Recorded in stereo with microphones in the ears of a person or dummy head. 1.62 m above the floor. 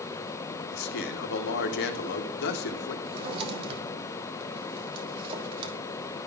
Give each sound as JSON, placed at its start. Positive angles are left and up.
{"t": 0.7, "sound": "a man speaking", "side_deg": 65, "distance_m": 1.0}
{"t": 3.0, "sound": "a drawer", "side_deg": -30, "distance_m": 1.3}